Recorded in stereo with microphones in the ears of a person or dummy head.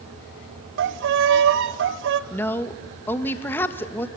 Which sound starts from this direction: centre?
A woman speaking, at 2.3 s.